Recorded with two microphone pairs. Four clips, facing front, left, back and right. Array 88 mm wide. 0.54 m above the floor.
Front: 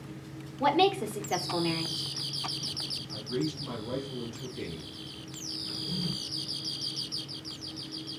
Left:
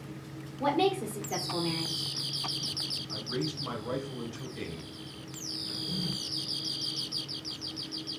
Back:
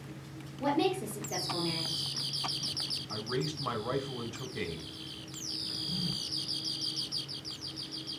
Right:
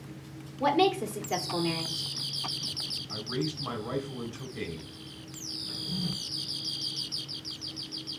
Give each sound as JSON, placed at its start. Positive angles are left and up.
{"t": 0.6, "sound": "a woman speaking", "azimuth_deg": -25, "distance_m": 1.8}
{"t": 3.1, "sound": "a man speaking", "azimuth_deg": -170, "distance_m": 2.5}
{"t": 5.7, "sound": "a drawer", "azimuth_deg": 25, "distance_m": 2.5}